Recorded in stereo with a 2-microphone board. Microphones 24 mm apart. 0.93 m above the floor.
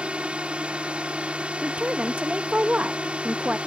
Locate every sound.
0.0 s a drone: 45° right (ahead or behind)
1.6 s a woman speaking: 65° right (ahead or behind)